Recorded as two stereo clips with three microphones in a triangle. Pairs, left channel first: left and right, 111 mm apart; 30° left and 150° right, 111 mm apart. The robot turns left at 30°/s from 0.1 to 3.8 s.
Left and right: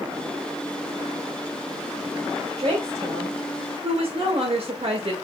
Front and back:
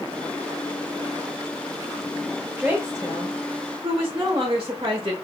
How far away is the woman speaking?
About 1.0 m.